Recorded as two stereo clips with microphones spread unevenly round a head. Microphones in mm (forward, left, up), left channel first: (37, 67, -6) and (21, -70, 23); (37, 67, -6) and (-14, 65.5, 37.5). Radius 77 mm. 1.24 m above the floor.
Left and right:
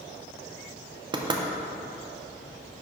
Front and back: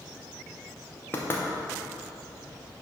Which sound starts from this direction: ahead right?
Knocking, at 1.1 s.